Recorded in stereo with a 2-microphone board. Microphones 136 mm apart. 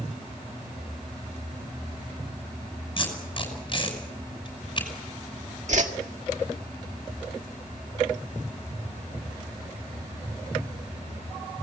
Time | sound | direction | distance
3.0 | tape being pulled | 35° left (ahead or behind) | 6 m
5.7 | a whoosh | 60° right (ahead or behind) | 1.9 m